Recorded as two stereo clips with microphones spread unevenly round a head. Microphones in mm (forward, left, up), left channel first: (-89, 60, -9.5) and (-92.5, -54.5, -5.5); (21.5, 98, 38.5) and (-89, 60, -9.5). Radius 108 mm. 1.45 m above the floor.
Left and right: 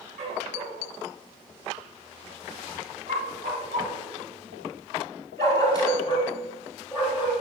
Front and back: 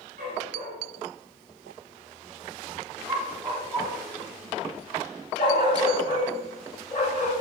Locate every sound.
0.2 s a dog barking: 105° right, 6.5 m; by 7.3 s 10° right, 6 m